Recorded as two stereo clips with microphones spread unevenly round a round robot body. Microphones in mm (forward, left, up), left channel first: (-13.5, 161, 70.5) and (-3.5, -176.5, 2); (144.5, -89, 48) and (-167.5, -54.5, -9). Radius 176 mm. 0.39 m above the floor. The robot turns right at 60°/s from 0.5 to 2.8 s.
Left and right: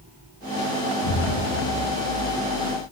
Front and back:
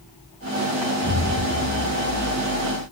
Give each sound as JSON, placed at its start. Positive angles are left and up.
{"t": 1.0, "sound": "an explosion", "azimuth_deg": 90, "distance_m": 2.0}